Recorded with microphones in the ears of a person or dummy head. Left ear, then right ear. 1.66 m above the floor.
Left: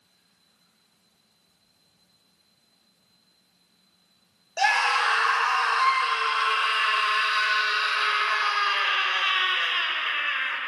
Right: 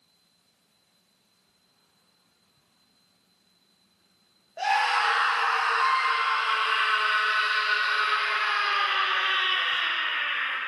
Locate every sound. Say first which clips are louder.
4.6 s a scream: left 2 dB; 80° left, 1.0 m